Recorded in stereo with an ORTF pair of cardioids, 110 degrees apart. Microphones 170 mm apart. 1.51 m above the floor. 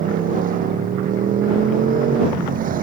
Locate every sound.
0.0 s a motorcycle: 55° right